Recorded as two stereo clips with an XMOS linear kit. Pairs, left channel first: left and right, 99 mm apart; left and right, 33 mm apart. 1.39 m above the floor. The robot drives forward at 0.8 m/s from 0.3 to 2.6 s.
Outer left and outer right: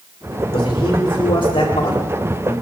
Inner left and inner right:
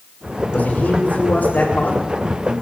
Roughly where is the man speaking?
Left.